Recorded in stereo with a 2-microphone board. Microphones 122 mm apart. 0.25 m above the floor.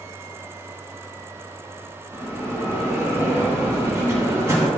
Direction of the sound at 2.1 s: 25° right (ahead or behind).